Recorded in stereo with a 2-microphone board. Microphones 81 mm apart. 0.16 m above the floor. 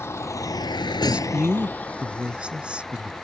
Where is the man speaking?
15° right (ahead or behind).